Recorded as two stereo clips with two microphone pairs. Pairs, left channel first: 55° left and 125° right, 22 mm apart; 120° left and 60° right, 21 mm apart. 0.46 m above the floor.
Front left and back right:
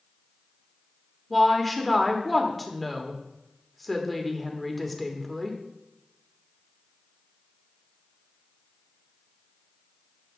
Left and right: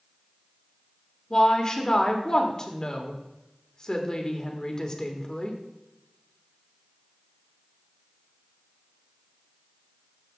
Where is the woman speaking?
140° left, 1.4 m.